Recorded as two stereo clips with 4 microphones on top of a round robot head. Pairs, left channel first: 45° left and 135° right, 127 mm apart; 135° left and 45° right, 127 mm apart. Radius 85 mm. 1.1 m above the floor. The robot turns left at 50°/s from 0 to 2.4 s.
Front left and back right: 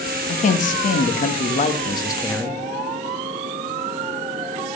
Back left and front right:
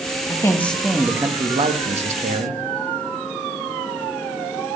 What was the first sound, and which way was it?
A man speaking, 75° left.